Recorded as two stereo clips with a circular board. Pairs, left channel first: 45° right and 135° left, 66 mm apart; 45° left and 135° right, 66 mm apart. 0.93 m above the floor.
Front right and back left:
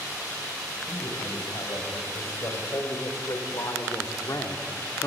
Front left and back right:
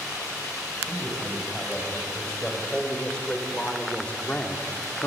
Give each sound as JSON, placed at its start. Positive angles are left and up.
{"t": 0.9, "sound": "a man speaking", "azimuth_deg": -35, "distance_m": 5.5}